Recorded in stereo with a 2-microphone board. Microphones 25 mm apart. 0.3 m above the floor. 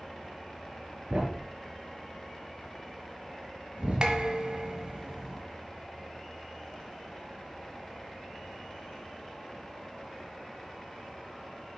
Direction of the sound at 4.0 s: 40° right (ahead or behind).